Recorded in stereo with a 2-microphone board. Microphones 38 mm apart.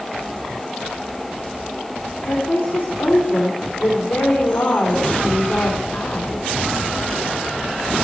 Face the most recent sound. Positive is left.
turn(degrees=65)  # may be behind; listen again after turning